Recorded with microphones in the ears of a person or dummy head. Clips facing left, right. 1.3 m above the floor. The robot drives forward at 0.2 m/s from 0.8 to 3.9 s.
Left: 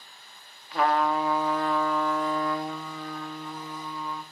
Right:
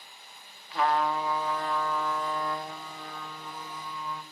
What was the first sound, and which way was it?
A trumpet, 45° left (ahead or behind).